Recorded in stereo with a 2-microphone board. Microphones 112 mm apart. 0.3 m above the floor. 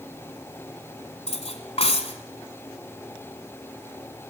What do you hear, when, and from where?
1.3 s cutlery clinking: 65° left (ahead or behind), 1.7 m